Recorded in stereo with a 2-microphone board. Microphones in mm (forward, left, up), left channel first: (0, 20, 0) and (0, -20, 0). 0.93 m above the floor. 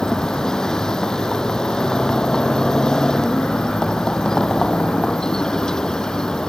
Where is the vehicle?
15° left (ahead or behind).